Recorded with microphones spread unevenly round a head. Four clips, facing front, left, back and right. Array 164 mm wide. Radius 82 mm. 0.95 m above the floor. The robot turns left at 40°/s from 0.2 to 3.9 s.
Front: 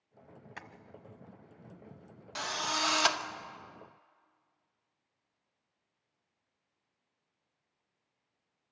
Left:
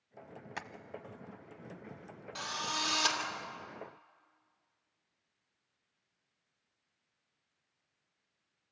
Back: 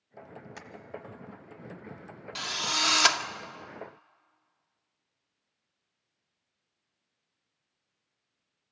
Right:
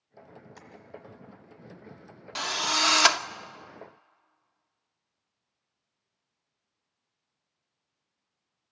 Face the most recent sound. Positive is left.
turn(degrees=-155)